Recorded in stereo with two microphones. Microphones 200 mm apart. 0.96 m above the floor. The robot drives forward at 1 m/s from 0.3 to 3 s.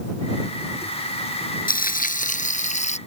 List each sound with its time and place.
1.7 s frying: 45° left (ahead or behind); by 3.0 s 35° left (ahead or behind)